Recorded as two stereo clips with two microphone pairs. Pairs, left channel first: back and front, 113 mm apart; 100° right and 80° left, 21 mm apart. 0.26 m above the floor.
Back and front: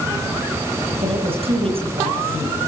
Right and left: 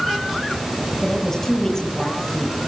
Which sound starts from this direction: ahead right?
A woman speaking, at 1.0 s.